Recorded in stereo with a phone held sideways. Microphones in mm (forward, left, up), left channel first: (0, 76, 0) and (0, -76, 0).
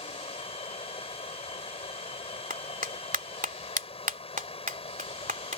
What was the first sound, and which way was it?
Running water, 40° left (ahead or behind).